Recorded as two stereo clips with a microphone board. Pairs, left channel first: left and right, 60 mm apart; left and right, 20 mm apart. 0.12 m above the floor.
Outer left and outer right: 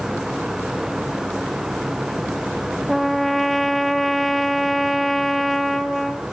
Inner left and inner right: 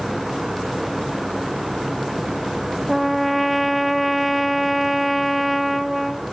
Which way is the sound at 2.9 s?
5° left (ahead or behind).